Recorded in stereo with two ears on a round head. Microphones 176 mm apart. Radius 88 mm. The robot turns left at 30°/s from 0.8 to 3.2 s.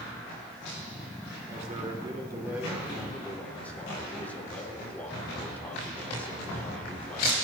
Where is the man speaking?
135° right, 3.5 m; by 7.4 s 170° left, 3.5 m.